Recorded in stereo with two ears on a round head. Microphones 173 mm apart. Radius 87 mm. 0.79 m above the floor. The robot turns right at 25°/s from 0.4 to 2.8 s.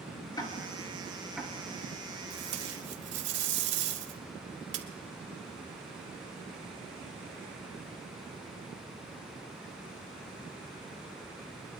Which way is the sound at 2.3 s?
55° right (ahead or behind).